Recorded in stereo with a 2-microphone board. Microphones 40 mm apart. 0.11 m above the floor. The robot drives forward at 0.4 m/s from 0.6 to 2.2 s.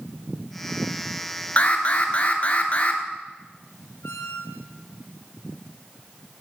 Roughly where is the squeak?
Left.